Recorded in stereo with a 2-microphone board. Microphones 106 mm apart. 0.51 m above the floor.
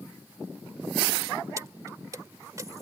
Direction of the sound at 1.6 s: 30° right (ahead or behind).